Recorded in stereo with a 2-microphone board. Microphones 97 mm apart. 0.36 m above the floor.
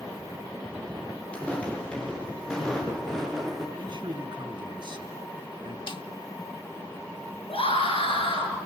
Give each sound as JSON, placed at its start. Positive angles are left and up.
{"t": 1.3, "sound": "footsteps", "side_deg": 15, "distance_m": 8.5}
{"t": 3.8, "sound": "a man speaking", "side_deg": -60, "distance_m": 3.0}
{"t": 5.9, "sound": "a snare drum", "side_deg": 60, "distance_m": 0.6}
{"t": 7.5, "sound": "a scream", "side_deg": 80, "distance_m": 5.5}